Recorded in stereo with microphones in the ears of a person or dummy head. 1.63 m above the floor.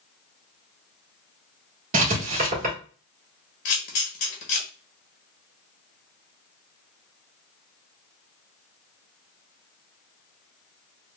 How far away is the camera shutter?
About 1.0 m.